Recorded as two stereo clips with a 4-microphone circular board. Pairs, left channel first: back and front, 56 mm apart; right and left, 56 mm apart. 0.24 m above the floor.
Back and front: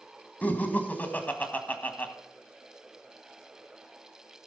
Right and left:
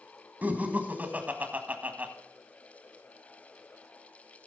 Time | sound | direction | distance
0.4 | laughter | 135° left | 1.4 m